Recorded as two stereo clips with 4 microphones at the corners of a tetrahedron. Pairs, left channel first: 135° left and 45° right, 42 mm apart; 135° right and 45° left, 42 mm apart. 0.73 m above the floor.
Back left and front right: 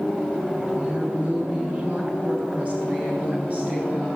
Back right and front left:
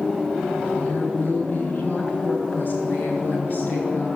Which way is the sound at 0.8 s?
95° right.